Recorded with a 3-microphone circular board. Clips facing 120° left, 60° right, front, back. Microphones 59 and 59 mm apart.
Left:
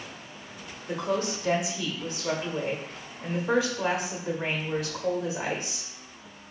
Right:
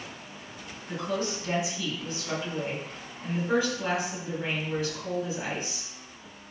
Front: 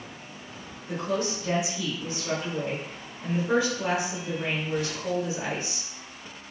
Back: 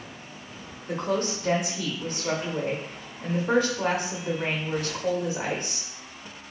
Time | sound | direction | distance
0.9 | a woman speaking | 140° left | 1.0 m